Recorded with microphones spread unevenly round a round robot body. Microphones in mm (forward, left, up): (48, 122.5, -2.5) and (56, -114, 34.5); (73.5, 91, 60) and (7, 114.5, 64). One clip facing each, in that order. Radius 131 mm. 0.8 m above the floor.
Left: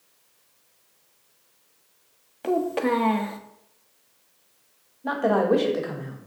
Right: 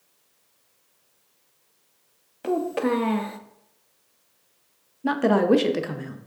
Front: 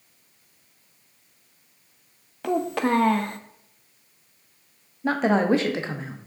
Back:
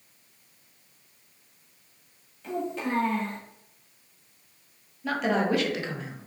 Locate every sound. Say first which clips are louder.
2.4 s a child speaking: even, front 7 dB; straight ahead, 0.5 m
5.0 s a woman speaking: right 2 dB, front 5 dB; 45° right, 0.5 m